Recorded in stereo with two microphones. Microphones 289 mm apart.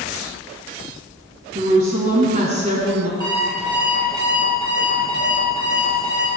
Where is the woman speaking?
30° right (ahead or behind), 1.5 m; by 3.1 s 20° right (ahead or behind), 1.9 m.